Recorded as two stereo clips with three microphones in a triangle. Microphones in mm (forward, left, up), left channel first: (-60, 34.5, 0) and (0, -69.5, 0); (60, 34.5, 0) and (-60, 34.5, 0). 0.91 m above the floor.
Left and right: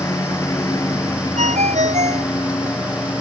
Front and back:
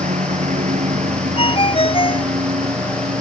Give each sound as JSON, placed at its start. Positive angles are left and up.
{"t": 0.0, "sound": "a lawn mower", "azimuth_deg": -175}
{"t": 1.4, "sound": "a ringtone", "azimuth_deg": -40}